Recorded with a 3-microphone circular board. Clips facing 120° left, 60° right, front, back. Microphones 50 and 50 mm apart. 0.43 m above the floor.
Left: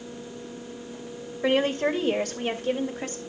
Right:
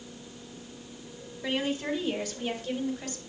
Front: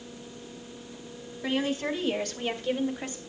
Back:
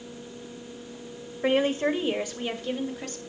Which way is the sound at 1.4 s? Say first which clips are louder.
Left 7 dB, back 5 dB; 145° left.